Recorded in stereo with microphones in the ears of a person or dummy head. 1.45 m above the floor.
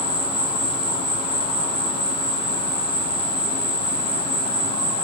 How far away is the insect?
About 0.9 m.